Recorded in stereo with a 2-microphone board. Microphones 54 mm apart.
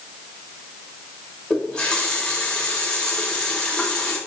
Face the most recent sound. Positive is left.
turn(degrees=15)  # may be behind; listen again after turning